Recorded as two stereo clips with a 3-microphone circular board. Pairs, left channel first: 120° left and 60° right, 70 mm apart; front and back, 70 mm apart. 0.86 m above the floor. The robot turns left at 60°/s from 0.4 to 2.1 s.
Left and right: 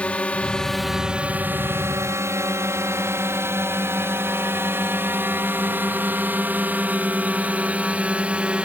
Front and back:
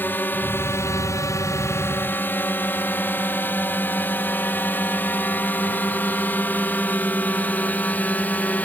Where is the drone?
50° left; by 8.7 s 15° right.